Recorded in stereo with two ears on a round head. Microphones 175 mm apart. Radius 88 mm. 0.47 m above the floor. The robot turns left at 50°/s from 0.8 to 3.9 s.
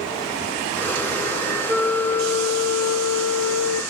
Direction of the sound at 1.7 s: 155° left.